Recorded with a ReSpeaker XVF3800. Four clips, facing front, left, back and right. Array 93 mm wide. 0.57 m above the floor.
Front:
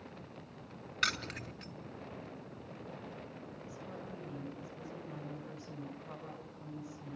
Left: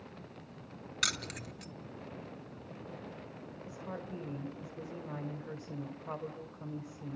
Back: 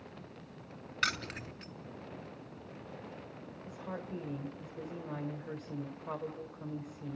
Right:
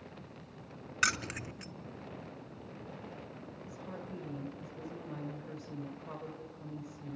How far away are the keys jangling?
About 0.6 m.